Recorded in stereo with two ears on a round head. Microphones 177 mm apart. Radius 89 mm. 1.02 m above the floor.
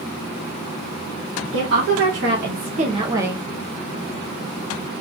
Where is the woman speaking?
70° right (ahead or behind), 1.2 m; by 3.4 s 5° right (ahead or behind), 0.7 m.